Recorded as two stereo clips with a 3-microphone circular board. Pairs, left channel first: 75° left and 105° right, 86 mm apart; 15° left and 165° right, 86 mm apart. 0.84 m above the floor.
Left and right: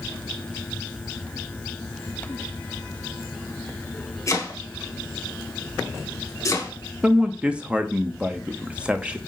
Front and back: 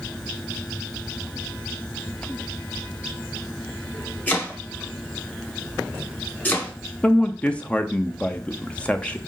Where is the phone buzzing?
I don't hear a phone buzzing.